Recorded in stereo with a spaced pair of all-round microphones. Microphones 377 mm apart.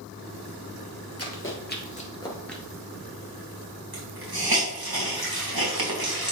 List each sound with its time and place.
1.2 s running footsteps: 40° left (ahead or behind), 2 m; by 2.6 s centre (ahead or behind), 1.8 m
3.9 s a hiss: 70° right (ahead or behind), 2.5 m